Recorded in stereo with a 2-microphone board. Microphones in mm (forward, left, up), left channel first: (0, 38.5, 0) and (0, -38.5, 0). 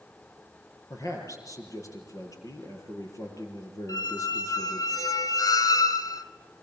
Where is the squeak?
50° left (ahead or behind), 1.2 m.